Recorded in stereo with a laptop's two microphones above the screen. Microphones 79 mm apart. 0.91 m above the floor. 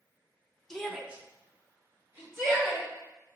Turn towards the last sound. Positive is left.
turn(degrees=-30)  # may be behind; listen again after turning